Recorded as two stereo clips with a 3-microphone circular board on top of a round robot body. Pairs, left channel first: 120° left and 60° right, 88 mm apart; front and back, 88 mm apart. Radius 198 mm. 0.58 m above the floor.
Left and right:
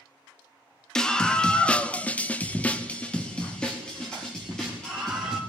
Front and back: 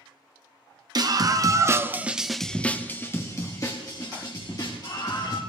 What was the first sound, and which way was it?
A scream, 160° right.